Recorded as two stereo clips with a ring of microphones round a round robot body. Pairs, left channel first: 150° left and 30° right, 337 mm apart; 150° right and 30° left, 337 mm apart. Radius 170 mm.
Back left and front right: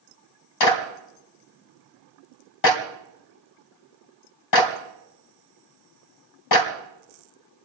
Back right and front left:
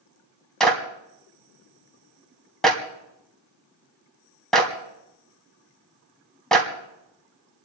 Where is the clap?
120° left, 2.5 m.